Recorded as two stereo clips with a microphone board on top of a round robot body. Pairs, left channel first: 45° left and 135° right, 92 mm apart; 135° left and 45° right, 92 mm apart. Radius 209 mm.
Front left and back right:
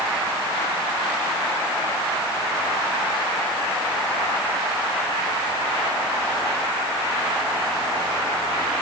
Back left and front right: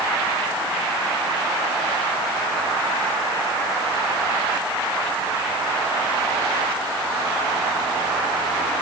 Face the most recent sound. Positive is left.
No sound to turn to.